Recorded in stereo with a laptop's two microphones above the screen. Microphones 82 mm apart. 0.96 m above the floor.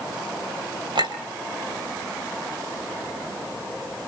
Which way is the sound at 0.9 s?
70° right (ahead or behind).